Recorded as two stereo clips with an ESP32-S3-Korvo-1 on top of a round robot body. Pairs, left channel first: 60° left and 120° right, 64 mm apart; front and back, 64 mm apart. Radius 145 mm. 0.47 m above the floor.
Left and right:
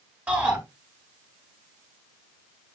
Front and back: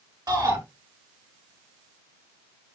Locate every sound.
0.3 s a shout: 175° left, 6.5 m